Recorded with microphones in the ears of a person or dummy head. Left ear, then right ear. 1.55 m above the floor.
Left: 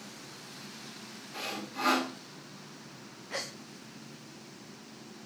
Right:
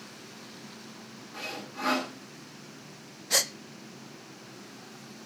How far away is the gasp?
About 0.9 m.